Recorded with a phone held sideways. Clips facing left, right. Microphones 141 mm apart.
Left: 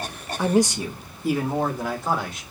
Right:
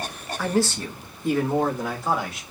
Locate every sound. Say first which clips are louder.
0.4 s a man speaking: left 3 dB; 20° left (ahead or behind), 0.5 m; by 2.4 s centre (ahead or behind), 1.5 m